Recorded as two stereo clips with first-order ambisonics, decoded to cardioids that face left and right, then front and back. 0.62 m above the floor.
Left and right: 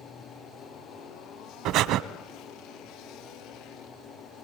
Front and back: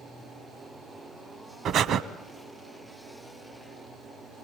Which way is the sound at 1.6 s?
125° right.